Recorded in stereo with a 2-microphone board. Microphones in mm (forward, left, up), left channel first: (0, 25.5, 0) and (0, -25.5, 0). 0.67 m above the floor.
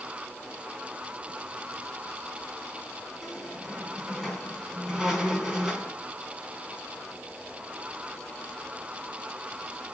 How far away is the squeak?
About 3.5 m.